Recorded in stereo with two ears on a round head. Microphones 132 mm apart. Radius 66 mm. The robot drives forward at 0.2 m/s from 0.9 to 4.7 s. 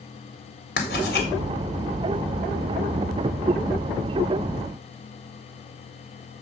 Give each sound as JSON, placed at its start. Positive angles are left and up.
{"t": 0.8, "sound": "writing", "side_deg": 75, "distance_m": 3.5}